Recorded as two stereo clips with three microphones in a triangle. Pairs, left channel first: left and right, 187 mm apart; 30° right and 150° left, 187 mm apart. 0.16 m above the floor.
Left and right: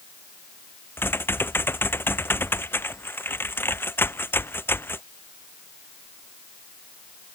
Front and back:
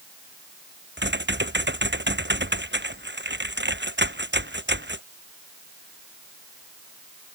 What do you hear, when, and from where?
1.0 s typing on a keyboard: 170° left